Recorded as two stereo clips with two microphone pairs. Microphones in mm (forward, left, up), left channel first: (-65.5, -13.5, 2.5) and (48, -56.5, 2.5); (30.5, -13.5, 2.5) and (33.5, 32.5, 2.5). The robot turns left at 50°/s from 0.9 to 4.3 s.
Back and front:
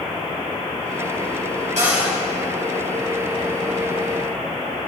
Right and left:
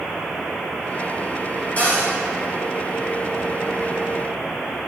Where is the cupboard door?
40° right, 4.5 m; by 2.1 s 60° right, 4.5 m.